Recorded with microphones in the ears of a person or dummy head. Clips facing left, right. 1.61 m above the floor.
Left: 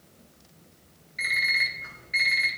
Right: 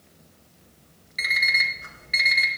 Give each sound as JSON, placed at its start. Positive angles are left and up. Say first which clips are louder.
{"t": 1.2, "sound": "an alarm clock", "louder": "right 3 dB", "side_deg": -65, "distance_m": 3.5}